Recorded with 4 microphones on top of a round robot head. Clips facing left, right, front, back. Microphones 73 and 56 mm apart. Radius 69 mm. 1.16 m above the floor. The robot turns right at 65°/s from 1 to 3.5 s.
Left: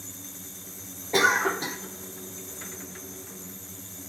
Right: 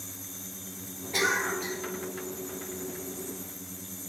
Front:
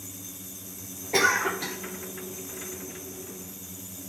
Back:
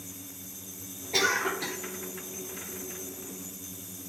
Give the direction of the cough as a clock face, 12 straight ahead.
10 o'clock.